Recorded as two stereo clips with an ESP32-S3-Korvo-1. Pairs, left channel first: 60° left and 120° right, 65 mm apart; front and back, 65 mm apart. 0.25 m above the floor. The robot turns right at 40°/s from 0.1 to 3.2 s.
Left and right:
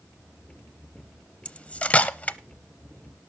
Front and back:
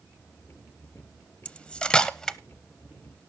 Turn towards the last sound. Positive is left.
turn(degrees=100)